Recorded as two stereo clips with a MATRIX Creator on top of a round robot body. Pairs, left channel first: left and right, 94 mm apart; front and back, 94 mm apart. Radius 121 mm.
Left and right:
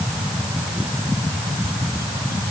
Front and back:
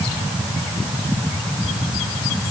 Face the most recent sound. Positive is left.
No sound to turn to.